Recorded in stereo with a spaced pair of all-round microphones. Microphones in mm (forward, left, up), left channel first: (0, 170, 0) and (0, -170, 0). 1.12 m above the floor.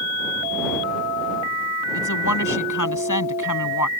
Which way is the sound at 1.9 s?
60° left (ahead or behind).